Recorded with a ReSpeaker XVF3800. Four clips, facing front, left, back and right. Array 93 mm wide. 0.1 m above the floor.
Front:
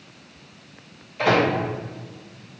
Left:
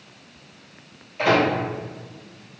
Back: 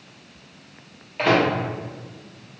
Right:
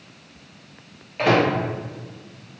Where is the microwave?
140° right, 1.7 m.